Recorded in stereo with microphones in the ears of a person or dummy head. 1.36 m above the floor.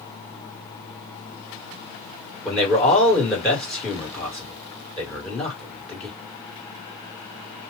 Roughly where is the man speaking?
Centre.